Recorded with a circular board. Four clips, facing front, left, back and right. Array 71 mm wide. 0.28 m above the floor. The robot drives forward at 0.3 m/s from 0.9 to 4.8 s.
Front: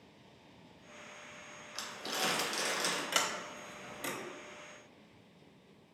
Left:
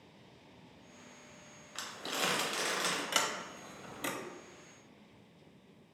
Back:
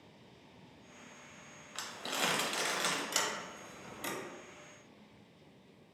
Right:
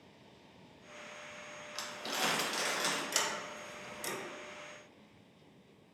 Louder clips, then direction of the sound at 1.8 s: Even, back 1 dB; 145° left.